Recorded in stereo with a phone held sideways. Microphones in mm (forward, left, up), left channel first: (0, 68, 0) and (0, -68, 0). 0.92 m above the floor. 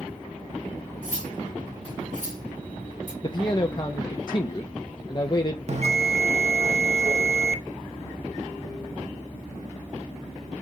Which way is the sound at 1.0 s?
75° right (ahead or behind).